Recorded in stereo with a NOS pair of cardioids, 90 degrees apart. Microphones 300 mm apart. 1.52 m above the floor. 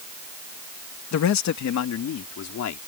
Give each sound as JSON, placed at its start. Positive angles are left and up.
{"t": 1.1, "sound": "a man speaking", "azimuth_deg": 65}